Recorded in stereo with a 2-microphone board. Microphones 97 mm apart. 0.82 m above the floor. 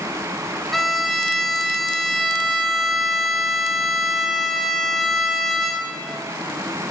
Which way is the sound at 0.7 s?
Centre (ahead or behind).